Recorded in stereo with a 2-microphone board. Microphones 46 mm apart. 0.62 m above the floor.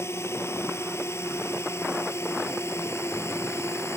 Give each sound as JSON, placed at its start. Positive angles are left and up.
{"t": 0.0, "sound": "a drone", "side_deg": 75}